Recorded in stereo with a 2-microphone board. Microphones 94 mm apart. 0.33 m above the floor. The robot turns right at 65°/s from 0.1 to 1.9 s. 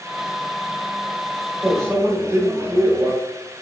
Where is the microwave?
30° right (ahead or behind), 0.8 m; by 3.1 s 25° right (ahead or behind), 0.8 m.